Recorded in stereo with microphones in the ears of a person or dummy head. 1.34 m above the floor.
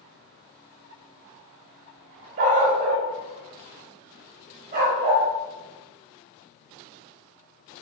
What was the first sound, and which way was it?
A dog barking, 45° right (ahead or behind).